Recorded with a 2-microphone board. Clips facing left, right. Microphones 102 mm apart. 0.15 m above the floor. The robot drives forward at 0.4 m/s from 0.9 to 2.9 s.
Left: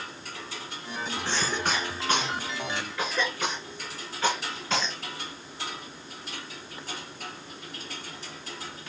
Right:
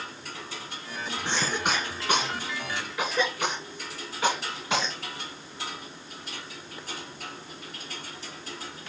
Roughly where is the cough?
Centre.